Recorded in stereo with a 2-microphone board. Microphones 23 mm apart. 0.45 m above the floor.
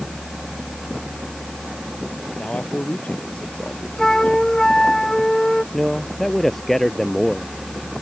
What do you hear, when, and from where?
2.4 s a man speaking: 85° left
4.0 s a flute: 20° left (ahead or behind)
5.7 s a man speaking: 10° left (ahead or behind)